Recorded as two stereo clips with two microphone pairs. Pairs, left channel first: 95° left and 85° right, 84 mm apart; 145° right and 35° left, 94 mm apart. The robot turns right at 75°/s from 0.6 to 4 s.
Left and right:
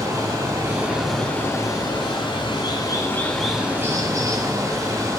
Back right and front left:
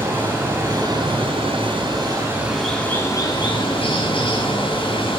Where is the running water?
30° right, 3.5 m; by 5.2 s 135° right, 3.5 m.